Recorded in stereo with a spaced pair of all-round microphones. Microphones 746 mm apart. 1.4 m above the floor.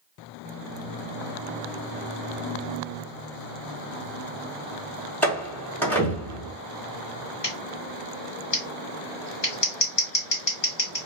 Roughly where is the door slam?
Centre.